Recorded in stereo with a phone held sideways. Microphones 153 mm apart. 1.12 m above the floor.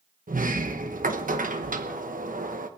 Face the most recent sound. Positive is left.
turn(degrees=-65)  # may be behind; listen again after turning